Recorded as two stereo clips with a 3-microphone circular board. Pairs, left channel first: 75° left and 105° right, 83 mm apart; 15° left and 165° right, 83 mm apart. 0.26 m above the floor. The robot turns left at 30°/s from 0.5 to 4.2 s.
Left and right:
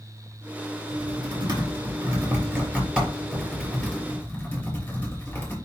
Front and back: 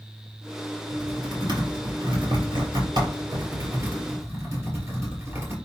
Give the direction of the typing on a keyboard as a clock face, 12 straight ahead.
4 o'clock.